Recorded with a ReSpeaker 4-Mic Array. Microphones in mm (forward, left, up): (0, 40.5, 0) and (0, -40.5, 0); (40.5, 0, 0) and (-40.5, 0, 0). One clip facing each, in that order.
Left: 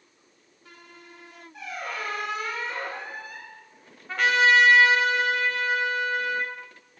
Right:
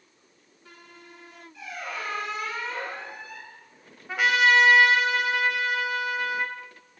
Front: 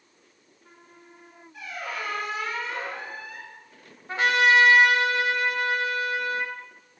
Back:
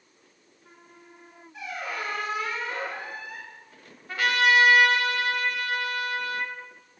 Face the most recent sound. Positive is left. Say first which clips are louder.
# left 1 dB, front 2 dB
turn(degrees=-15)